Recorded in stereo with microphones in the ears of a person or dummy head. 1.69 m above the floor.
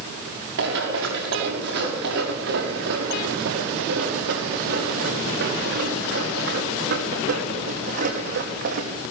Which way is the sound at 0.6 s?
70° right (ahead or behind).